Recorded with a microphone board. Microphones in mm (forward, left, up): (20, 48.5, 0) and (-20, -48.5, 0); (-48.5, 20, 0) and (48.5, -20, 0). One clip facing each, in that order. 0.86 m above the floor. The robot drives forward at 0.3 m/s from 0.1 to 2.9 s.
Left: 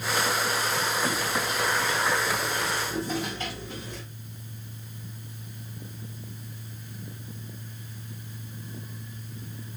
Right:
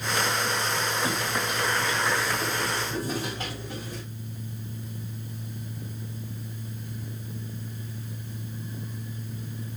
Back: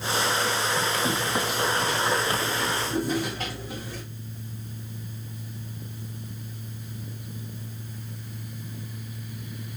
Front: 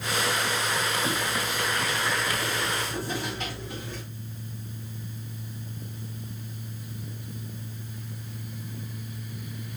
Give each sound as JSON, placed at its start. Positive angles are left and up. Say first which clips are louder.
{"t": 1.1, "sound": "footsteps", "louder": "even, back 2 dB", "azimuth_deg": 170, "distance_m": 2.0}